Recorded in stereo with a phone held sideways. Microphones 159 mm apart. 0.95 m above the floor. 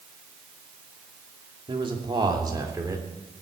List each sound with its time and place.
1.7 s a man speaking: 35° right (ahead or behind), 2.5 m; by 3.0 s 20° right (ahead or behind), 3 m